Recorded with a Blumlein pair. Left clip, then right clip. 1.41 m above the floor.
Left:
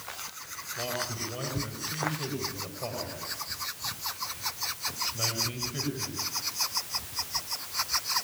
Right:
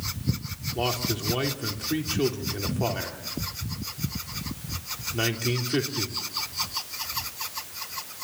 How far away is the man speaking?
About 3.5 m.